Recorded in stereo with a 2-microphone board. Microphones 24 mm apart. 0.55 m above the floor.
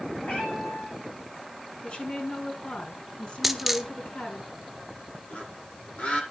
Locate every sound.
0.2 s a cat meowing: 80° left, 10 m
1.8 s a woman speaking: 60° left (ahead or behind), 7.5 m
3.4 s a dropped coin: 5° right (ahead or behind), 2 m
5.3 s a bird: 85° left, 9 m